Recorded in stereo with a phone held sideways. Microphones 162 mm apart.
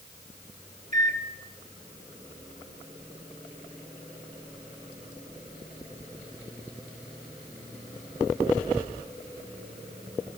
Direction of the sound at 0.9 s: 45° right (ahead or behind).